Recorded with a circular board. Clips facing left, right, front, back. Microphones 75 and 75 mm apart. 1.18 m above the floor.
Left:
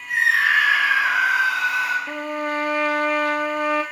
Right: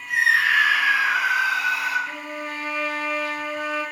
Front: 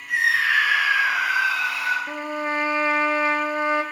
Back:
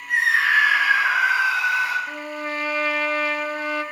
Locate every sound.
0.1 s a scream: 135° left, 4 m; by 2.0 s 110° left, 3.5 m
2.1 s a trumpet: 65° left, 1.2 m